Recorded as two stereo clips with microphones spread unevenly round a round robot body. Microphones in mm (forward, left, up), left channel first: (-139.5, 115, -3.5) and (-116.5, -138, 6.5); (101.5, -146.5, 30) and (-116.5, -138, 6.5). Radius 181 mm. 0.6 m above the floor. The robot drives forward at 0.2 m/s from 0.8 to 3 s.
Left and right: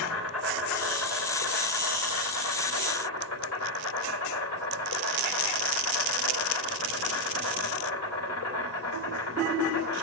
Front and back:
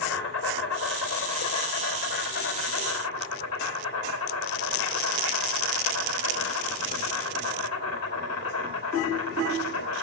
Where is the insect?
55° left, 3 m; by 10.0 s 65° left, 3 m.